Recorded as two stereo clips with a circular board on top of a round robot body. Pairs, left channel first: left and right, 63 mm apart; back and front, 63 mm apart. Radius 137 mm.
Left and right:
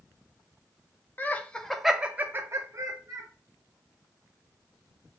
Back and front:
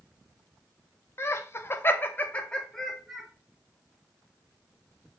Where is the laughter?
140° left, 0.7 m; by 3.3 s 90° right, 0.9 m.